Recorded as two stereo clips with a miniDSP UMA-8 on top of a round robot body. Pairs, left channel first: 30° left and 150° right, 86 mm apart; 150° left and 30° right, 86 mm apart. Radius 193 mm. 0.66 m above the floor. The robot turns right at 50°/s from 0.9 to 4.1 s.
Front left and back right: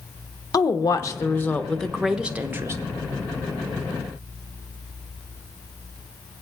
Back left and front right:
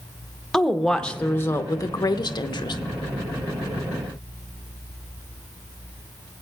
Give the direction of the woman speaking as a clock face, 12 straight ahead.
10 o'clock.